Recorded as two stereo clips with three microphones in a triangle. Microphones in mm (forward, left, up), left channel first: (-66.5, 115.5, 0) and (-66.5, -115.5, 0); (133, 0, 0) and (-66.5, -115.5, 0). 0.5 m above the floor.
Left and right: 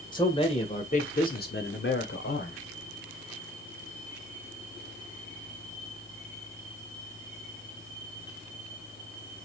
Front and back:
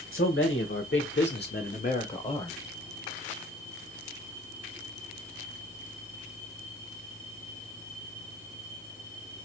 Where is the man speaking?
20° left, 1.9 m; by 2.6 s 95° left, 1.7 m.